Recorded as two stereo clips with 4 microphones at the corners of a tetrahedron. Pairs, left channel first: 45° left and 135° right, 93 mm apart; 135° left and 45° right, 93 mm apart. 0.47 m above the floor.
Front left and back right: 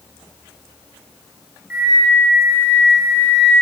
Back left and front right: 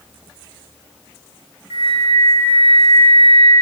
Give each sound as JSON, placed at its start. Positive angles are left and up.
{"t": 1.7, "sound": "a flute", "azimuth_deg": 160, "distance_m": 0.6}